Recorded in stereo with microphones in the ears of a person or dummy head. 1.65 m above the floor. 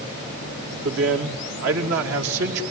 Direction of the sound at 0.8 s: 70° right (ahead or behind).